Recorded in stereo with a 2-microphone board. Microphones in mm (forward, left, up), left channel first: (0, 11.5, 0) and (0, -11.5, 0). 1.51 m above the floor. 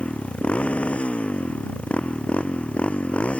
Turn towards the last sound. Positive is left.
turn(degrees=65)  # may be behind; listen again after turning